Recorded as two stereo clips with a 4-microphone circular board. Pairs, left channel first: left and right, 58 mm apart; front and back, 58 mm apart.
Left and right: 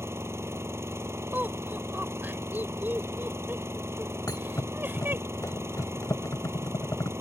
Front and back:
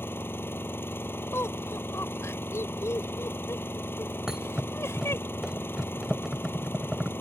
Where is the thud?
100° left.